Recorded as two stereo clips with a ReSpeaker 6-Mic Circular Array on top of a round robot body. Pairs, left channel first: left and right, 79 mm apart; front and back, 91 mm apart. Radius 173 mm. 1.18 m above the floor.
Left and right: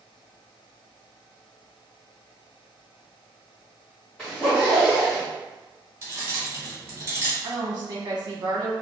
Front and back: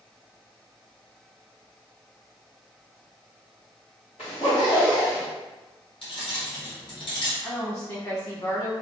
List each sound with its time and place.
4.2 s a zipper: 10° left, 0.9 m
6.0 s keys jangling: 35° right, 0.9 m
7.4 s a woman speaking: 55° right, 1.0 m